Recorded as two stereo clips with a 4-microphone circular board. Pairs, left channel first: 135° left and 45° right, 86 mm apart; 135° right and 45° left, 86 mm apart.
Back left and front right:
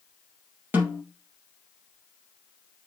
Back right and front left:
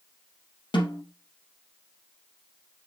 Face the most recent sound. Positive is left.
turn(degrees=-110)